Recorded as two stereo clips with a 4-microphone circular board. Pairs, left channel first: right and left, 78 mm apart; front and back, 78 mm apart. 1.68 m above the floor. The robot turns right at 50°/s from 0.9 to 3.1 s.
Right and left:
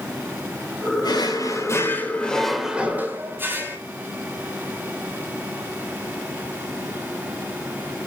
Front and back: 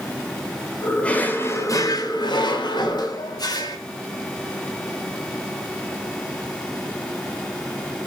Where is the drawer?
75° right, 3.5 m; by 3.8 s 30° left, 3.5 m.